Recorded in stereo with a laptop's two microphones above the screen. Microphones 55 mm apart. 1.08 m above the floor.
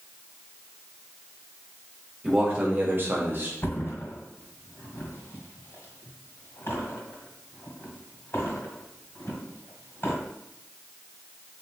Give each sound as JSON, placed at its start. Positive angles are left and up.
{"t": 2.2, "sound": "a man speaking", "side_deg": -20, "distance_m": 1.5}
{"t": 3.6, "sound": "a thud", "side_deg": 50, "distance_m": 1.6}